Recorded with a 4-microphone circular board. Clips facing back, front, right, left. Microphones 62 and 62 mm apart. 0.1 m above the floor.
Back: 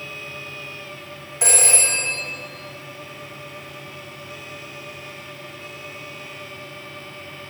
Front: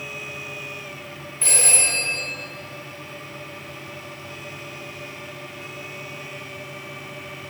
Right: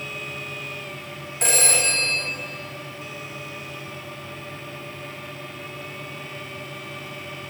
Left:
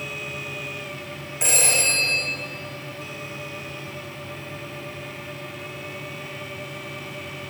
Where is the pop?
No pop in this recording.